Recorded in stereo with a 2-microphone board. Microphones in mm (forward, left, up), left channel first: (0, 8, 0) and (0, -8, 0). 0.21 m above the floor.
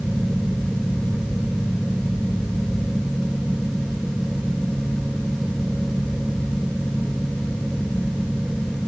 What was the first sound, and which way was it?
Only background noise.